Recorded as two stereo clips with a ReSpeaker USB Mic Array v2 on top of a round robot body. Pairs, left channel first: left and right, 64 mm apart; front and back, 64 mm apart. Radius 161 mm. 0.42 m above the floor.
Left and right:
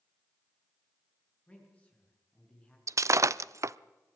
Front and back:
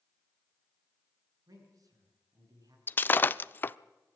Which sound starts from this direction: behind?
A man speaking, at 1.5 s.